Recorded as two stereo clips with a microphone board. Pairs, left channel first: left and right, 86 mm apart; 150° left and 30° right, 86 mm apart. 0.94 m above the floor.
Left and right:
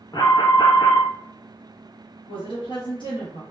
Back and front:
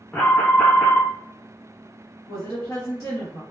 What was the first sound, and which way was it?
An alarm, 80° left.